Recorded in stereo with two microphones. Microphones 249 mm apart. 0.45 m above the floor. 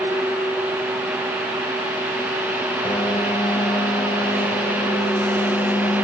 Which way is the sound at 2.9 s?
20° left (ahead or behind).